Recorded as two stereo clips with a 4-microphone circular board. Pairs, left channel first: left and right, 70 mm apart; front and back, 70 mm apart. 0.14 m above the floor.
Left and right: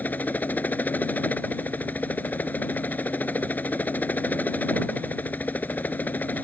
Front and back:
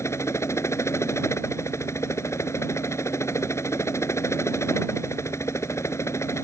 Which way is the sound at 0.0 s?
30° left.